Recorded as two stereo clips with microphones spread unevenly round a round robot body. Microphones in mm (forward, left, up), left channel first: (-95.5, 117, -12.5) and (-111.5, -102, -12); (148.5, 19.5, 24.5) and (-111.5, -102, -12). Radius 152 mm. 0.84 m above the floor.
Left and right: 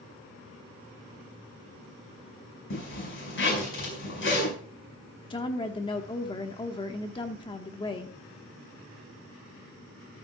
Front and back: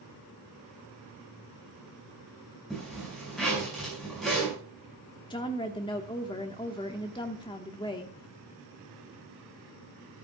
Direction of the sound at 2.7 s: 115° left.